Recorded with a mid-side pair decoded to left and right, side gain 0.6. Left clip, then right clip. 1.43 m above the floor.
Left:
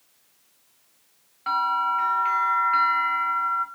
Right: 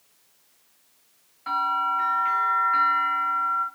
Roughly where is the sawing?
No sawing in this recording.